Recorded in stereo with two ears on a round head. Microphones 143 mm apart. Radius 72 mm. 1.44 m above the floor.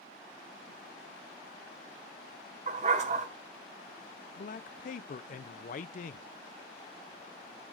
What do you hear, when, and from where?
2.7 s a dog barking: 45° right (ahead or behind), 5 m
4.4 s a man speaking: 50° left (ahead or behind), 0.5 m